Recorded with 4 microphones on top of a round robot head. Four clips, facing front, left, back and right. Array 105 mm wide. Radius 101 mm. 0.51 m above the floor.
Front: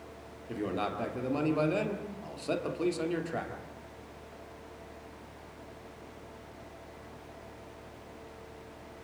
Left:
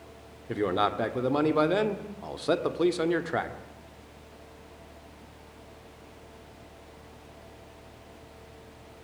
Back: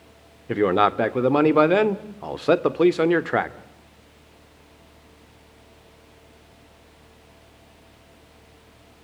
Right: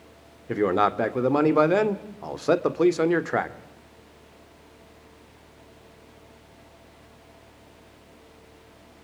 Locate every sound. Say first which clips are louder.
0.5 s a man speaking: right 5 dB, back 14 dB; 160° right, 1.7 m